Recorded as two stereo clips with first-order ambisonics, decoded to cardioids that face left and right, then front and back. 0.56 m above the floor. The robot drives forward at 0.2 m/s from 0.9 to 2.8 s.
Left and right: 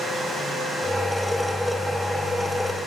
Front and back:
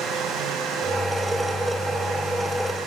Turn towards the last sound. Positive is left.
No sound to turn to.